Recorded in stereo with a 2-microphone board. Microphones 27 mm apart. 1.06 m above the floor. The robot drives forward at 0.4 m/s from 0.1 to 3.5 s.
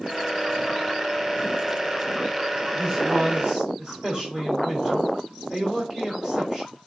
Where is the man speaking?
15° right (ahead or behind), 2.5 m; by 6.7 s 10° right (ahead or behind), 3 m.